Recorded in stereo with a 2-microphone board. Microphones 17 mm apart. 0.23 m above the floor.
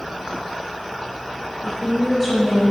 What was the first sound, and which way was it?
A woman speaking, 10° left (ahead or behind).